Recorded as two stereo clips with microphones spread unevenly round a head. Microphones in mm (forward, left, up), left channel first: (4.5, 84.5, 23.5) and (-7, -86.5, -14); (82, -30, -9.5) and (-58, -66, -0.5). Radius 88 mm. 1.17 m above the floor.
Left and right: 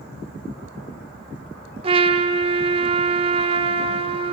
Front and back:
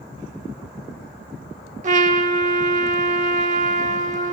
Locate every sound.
1.8 s a trumpet: 155° right, 1.1 m